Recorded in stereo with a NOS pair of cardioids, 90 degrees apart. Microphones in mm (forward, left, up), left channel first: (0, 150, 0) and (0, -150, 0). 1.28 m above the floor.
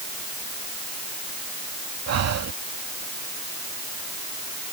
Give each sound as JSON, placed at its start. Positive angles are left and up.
{"t": 2.1, "sound": "breathing", "azimuth_deg": -60}